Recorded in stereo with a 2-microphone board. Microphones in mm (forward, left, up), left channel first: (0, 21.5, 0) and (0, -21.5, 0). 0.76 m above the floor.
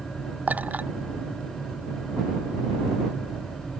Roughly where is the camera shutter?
I don't hear a camera shutter.